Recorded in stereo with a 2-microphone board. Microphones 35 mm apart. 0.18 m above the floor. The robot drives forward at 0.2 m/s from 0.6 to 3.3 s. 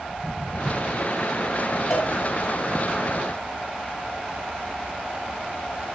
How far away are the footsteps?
About 5 m.